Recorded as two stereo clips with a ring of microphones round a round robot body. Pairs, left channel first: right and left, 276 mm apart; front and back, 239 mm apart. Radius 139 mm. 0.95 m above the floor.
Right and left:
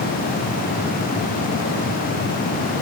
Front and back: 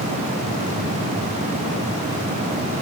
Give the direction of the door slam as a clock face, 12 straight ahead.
No door slam in this recording.